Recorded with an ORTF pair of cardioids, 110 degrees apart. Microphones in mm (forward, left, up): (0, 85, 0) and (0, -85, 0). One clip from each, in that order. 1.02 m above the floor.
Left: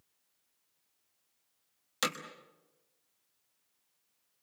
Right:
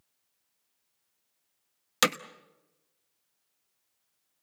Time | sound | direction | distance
2.0 | hammering | 50° right | 1.2 m